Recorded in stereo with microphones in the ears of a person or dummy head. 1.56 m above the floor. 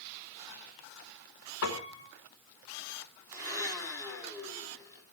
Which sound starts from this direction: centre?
A blender, at 3.3 s.